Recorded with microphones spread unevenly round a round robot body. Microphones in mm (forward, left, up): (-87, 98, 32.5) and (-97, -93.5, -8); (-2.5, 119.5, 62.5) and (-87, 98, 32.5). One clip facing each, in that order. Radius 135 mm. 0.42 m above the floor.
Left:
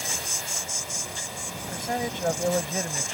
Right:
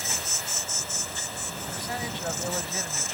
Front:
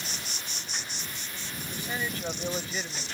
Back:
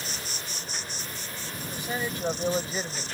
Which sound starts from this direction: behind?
An insect, at 0.0 s.